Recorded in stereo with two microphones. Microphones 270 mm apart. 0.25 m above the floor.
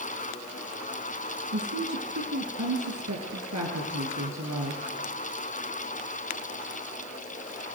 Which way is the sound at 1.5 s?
75° right (ahead or behind).